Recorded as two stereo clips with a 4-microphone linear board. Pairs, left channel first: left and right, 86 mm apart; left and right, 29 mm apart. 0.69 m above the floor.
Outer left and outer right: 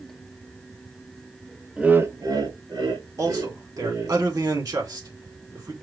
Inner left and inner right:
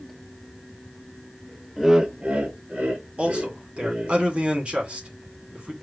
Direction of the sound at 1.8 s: 10° right (ahead or behind).